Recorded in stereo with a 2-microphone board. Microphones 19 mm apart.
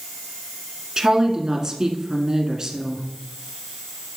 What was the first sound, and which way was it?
A woman speaking, 30° right (ahead or behind).